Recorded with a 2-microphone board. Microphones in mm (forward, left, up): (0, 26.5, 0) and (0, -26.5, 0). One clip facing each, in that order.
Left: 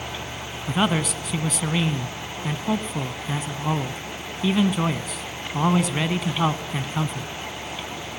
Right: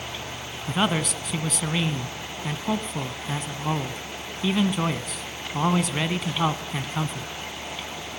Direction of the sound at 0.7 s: 5° left (ahead or behind).